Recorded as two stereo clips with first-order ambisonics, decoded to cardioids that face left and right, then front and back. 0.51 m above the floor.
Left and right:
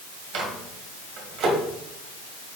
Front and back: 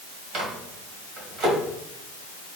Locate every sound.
0.3 s a microwave: 130° right, 1.9 m